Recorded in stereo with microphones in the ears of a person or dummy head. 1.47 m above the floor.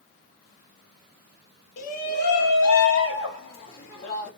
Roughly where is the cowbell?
No cowbell in this recording.